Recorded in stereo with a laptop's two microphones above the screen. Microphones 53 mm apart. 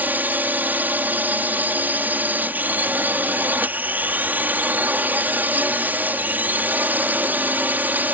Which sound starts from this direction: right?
A drone, at 0.0 s.